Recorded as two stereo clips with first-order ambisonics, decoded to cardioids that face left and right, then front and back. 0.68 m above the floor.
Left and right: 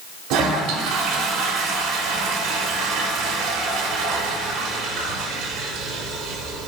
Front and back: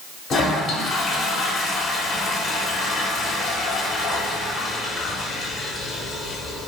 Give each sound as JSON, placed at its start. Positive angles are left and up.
{"t": 0.3, "sound": "a toilet flushing", "azimuth_deg": -60, "distance_m": 0.9}